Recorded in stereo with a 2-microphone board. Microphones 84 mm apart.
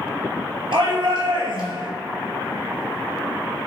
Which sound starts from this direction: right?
A shout, at 0.7 s.